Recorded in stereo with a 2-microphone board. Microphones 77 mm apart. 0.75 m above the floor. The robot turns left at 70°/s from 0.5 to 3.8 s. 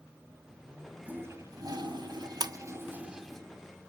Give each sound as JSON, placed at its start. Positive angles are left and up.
{"t": 1.1, "sound": "a toilet flushing", "azimuth_deg": -20, "distance_m": 2.5}
{"t": 2.4, "sound": "a splash", "side_deg": -65, "distance_m": 0.9}